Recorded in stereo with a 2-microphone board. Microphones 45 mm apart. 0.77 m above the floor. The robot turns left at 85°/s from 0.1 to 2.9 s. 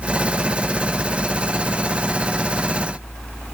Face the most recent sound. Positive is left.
No sound to turn to.